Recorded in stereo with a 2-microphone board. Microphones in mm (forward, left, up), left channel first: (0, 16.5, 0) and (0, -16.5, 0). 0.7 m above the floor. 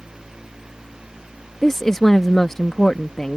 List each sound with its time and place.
1.6 s a woman speaking: 15° left (ahead or behind)